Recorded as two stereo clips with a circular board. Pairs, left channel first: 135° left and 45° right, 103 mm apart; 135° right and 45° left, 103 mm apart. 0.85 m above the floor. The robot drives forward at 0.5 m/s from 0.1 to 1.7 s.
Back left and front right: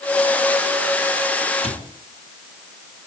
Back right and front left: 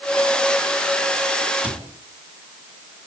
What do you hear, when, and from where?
1.6 s a cupboard door: 125° left, 4 m